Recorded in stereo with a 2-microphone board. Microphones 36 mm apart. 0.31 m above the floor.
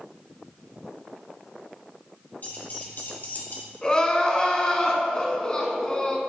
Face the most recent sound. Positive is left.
turn(degrees=25)  # may be behind; listen again after turning